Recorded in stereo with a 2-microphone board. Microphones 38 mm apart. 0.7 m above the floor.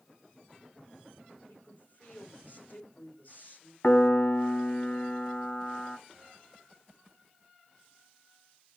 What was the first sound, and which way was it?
A woman speaking, 55° left (ahead or behind).